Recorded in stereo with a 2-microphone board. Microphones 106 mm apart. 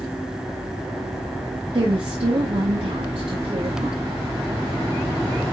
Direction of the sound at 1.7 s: 65° right (ahead or behind).